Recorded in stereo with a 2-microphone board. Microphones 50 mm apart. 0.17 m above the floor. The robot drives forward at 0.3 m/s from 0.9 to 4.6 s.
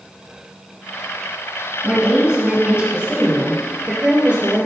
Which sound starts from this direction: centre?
A woman speaking, at 1.8 s.